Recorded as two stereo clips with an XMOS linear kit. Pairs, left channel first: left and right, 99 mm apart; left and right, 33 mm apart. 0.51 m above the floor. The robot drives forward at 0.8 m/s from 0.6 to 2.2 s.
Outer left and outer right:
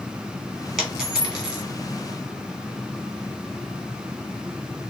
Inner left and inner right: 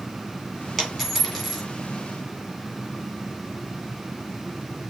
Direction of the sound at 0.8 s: 5° right (ahead or behind).